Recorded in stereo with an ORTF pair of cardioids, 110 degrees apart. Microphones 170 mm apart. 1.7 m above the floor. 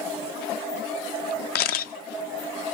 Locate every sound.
1.6 s a camera shutter: 65° left, 0.7 m